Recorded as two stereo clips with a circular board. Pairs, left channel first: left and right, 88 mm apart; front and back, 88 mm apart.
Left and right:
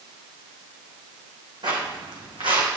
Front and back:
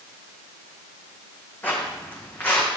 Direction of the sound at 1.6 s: 70° right.